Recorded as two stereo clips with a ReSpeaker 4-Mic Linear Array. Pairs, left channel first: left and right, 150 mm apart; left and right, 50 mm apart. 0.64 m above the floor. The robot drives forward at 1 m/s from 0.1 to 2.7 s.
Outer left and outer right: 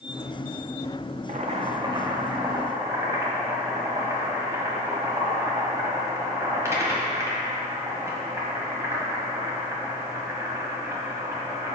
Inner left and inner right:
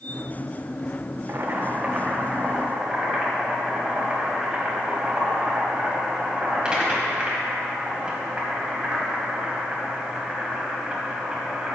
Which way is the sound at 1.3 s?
55° right (ahead or behind).